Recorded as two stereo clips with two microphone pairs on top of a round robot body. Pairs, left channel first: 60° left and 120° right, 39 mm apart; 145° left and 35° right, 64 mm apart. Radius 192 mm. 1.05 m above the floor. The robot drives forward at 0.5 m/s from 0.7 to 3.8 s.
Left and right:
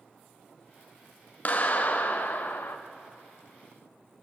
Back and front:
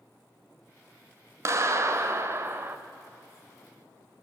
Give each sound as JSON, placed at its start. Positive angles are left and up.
{"t": 1.4, "sound": "a clap", "azimuth_deg": 10, "distance_m": 1.3}